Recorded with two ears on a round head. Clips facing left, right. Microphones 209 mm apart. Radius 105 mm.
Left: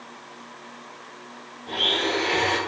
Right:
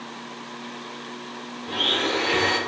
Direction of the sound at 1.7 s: 10° right (ahead or behind).